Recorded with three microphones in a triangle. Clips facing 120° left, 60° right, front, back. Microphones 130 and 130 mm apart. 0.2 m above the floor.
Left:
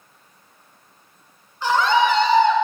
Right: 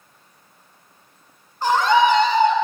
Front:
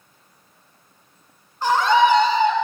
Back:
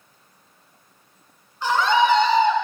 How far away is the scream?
About 1.8 m.